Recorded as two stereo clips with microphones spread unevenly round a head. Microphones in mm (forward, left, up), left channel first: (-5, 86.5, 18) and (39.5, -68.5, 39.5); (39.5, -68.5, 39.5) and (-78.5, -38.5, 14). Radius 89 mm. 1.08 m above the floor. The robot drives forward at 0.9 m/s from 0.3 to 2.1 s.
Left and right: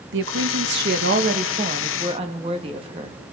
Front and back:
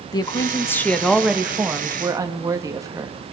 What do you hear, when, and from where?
0.1 s a woman speaking: 75° right, 1.4 m; by 3.2 s 135° right, 1.9 m